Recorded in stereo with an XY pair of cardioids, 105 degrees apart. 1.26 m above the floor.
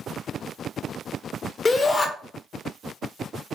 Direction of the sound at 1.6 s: 30° left.